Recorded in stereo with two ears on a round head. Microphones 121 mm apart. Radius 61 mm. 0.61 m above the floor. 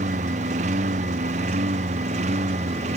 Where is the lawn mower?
55° right (ahead or behind); by 3.0 s 50° right (ahead or behind).